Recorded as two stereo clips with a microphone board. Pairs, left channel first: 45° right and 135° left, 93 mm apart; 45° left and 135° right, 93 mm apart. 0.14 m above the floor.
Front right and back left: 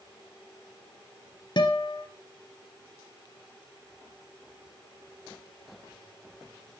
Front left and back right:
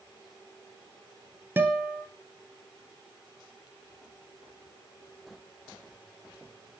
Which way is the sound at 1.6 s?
70° right.